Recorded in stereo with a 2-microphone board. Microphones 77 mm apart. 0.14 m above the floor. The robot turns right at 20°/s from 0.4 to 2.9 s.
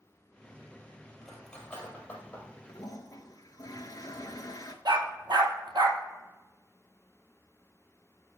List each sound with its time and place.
1.2 s cutlery clinking: centre (ahead or behind), 2 m; by 2.5 s 25° left (ahead or behind), 2 m
2.7 s a toilet flushing: 50° left (ahead or behind), 0.8 m; by 4.8 s 55° left (ahead or behind), 0.8 m
4.8 s a dog barking: 65° right (ahead or behind), 1.5 m